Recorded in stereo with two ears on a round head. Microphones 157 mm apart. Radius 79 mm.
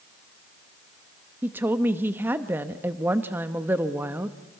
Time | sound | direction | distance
1.4 | a woman speaking | 10° right (ahead or behind) | 0.9 m